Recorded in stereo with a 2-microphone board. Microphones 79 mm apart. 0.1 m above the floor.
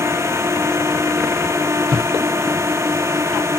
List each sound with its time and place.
0.0 s a drone: 35° right (ahead or behind)